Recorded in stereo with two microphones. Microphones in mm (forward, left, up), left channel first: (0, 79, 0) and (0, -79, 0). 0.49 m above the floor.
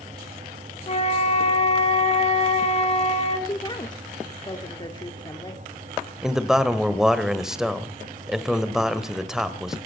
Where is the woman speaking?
30° left (ahead or behind), 1.3 m.